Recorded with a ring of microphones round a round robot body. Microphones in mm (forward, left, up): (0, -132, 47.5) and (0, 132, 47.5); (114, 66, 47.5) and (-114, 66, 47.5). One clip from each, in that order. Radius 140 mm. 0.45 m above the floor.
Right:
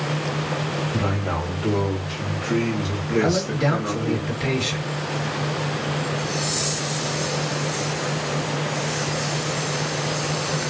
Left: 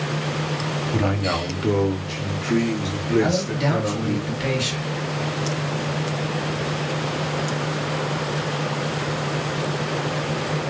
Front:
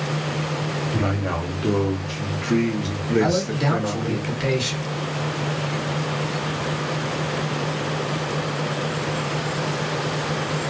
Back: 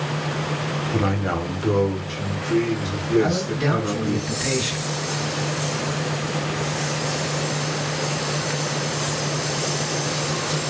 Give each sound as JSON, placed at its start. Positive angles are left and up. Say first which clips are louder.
{"t": 0.9, "sound": "a man speaking", "louder": "left 2 dB, back 3 dB", "azimuth_deg": 115, "distance_m": 1.0}
{"t": 3.2, "sound": "a man speaking", "louder": "right 3 dB, front 1 dB", "azimuth_deg": 15, "distance_m": 2.0}